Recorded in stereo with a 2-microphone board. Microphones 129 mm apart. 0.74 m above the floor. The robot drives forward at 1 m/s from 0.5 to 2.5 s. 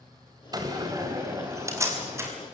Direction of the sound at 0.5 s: 30° right (ahead or behind).